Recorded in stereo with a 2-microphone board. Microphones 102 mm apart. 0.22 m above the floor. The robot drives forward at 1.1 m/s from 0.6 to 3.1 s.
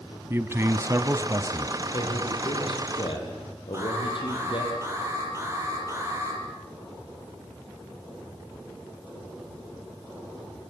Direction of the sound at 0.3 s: 25° right (ahead or behind).